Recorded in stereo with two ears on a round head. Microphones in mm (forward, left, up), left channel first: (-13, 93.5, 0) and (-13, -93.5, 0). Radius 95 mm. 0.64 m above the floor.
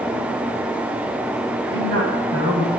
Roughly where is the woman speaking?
Right.